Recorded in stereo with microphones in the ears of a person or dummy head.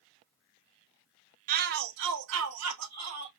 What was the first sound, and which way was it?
A shout, 45° right (ahead or behind).